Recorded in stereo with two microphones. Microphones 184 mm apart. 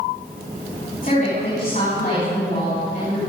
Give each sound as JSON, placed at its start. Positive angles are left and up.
{"t": 1.0, "sound": "a woman speaking", "side_deg": 45, "distance_m": 6.5}